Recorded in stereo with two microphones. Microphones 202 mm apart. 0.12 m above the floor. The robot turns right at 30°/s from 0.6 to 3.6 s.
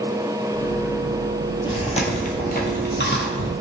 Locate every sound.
1.6 s chewing: 25° left (ahead or behind), 0.7 m; by 3.5 s 70° left (ahead or behind), 0.7 m